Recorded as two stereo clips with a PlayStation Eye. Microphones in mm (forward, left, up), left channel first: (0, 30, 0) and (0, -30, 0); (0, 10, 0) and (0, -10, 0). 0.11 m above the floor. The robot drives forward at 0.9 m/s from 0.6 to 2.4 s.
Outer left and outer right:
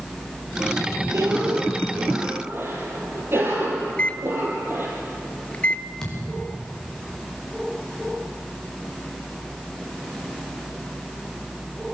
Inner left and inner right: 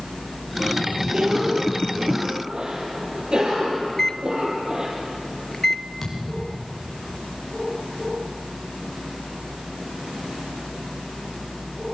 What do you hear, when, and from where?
1.1 s a cough: 60° right (ahead or behind), 2 m; by 4.9 s 45° right (ahead or behind), 2.5 m
3.9 s a microwave: 25° left (ahead or behind), 1.1 m
6.0 s a thud: 10° left (ahead or behind), 8.5 m